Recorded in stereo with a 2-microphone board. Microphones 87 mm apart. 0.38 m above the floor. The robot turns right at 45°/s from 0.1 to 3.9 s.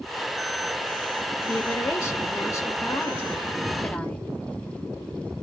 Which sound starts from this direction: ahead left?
A woman speaking, at 1.4 s.